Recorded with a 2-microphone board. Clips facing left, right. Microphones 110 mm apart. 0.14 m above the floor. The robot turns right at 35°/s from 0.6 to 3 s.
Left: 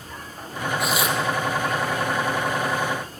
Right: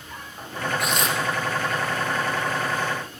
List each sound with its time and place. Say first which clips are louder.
0.8 s tearing paper: left 3 dB; centre (ahead or behind), 3 m; by 1.2 s 10° left (ahead or behind), 3 m